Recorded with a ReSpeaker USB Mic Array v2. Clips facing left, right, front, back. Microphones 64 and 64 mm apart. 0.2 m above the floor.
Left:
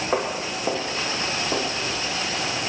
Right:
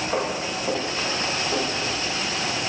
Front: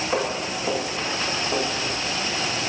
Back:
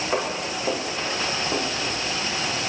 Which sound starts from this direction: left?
Footsteps, at 0.1 s.